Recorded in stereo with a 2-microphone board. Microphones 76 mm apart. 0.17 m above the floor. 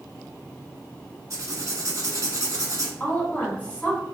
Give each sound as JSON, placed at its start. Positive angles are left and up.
{"t": 1.3, "sound": "writing", "side_deg": -50, "distance_m": 0.7}
{"t": 3.0, "sound": "a woman speaking", "side_deg": 20, "distance_m": 1.2}